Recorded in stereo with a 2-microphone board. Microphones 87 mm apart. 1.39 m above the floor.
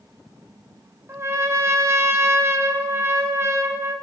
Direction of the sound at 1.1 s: 35° right (ahead or behind).